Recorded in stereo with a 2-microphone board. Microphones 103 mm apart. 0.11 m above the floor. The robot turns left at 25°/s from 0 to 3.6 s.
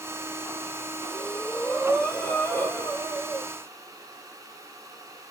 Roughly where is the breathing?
Behind.